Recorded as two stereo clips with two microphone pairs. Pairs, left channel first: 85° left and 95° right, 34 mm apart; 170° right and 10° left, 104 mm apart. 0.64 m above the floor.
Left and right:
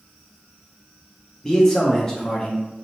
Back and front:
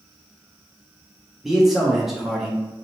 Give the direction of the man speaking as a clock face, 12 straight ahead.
9 o'clock.